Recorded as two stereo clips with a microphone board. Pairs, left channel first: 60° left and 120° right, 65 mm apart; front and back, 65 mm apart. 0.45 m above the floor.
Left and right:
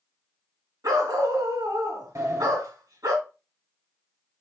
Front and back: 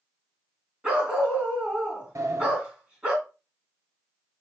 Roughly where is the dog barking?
Right.